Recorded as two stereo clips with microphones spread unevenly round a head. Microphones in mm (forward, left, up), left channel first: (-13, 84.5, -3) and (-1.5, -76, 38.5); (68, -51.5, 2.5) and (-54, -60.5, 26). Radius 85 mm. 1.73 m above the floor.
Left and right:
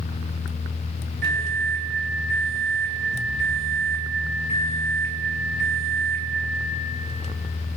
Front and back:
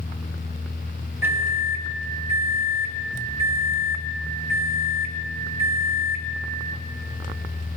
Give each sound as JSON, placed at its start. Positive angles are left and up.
{"t": 1.2, "sound": "a microwave", "azimuth_deg": -105, "distance_m": 2.5}